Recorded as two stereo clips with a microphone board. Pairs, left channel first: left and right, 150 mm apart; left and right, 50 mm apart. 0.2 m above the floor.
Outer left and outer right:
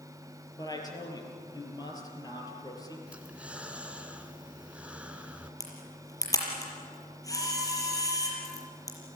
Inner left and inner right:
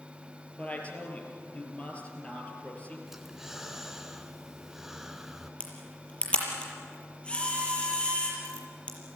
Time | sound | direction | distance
0.6 | a woman speaking | 25° left (ahead or behind) | 5 m
3.1 | breathing | 10° right (ahead or behind) | 1.5 m
5.6 | a camera shutter | 25° left (ahead or behind) | 6 m